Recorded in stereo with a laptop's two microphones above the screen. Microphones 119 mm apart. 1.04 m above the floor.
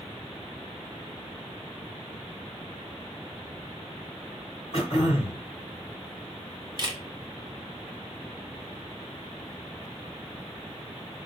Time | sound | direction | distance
4.7 | throat clearing | 55° left (ahead or behind) | 1.1 m
6.8 | a camera shutter | 35° right (ahead or behind) | 0.5 m